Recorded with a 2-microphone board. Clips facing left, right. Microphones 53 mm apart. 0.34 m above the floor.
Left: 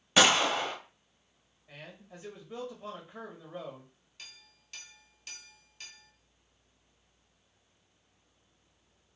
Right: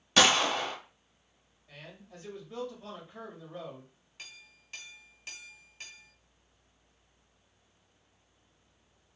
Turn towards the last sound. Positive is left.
turn(degrees=-20)  # may be behind; listen again after turning